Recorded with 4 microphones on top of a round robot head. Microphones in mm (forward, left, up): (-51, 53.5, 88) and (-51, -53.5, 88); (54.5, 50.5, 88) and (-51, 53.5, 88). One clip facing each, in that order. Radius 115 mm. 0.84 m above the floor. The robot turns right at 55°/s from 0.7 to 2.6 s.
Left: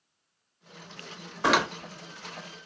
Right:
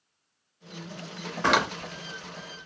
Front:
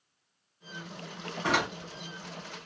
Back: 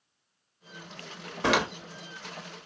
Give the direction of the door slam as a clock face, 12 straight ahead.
6 o'clock.